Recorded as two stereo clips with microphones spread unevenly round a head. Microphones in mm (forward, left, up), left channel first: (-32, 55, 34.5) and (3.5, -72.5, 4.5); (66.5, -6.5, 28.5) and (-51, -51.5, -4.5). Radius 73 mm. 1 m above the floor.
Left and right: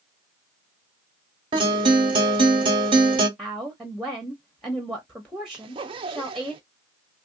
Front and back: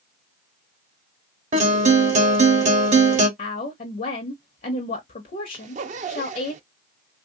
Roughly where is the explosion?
I don't hear an explosion.